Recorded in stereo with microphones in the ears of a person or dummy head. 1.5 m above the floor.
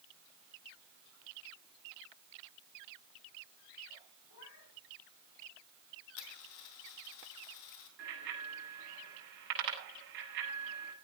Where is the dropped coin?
65° left (ahead or behind), 2.5 m.